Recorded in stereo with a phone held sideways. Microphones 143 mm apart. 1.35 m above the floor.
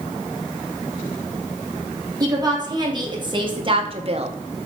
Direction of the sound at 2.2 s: 25° right (ahead or behind).